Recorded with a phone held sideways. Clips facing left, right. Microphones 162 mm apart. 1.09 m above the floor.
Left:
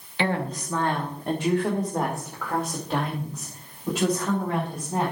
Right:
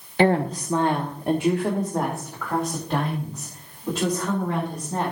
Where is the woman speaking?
45° right (ahead or behind), 0.9 m; by 5.1 s 10° left (ahead or behind), 4.5 m.